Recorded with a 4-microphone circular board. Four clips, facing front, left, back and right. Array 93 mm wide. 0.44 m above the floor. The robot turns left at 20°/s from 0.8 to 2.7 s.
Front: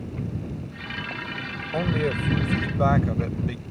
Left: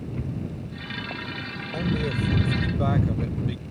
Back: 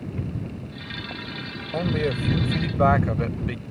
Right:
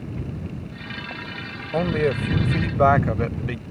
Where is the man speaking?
90° right; by 3.6 s 105° right.